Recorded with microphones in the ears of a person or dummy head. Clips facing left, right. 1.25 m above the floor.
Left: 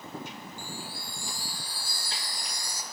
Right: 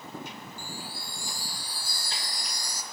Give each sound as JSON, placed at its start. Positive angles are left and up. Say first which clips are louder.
{"t": 0.6, "sound": "a chime", "louder": "left 1 dB", "side_deg": -35, "distance_m": 1.1}